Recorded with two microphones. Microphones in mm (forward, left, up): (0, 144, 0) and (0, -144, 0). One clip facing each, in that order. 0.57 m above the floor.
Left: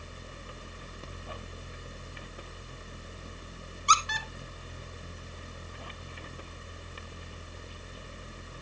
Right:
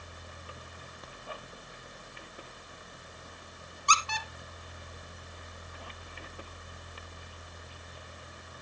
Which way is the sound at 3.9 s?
20° left (ahead or behind).